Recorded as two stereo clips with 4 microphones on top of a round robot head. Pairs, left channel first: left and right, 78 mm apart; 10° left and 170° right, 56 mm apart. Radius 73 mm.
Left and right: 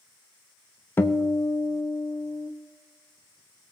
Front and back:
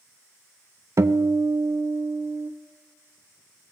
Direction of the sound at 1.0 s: 155° left.